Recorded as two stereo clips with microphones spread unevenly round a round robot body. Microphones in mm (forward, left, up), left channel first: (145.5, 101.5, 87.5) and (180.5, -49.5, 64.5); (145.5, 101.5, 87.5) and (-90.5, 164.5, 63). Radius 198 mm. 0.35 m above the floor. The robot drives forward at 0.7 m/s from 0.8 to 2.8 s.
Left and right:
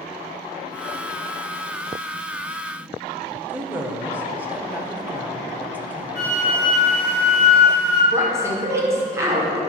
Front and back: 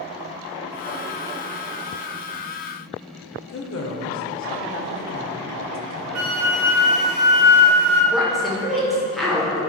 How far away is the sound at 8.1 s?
About 1.5 m.